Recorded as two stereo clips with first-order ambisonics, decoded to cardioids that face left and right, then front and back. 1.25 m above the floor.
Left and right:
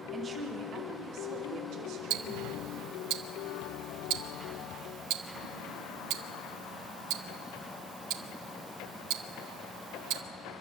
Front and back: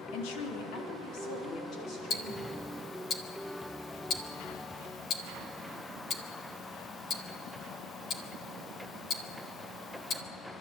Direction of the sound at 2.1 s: 60° right.